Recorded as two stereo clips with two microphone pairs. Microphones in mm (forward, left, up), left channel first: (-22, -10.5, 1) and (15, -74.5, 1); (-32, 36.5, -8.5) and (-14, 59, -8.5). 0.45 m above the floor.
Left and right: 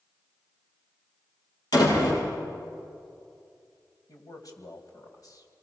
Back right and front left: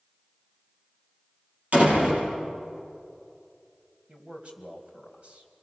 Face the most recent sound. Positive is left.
turn(degrees=90)